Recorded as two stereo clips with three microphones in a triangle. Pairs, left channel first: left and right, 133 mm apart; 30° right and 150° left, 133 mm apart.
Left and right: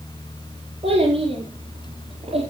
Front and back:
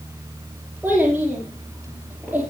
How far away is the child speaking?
About 3.5 m.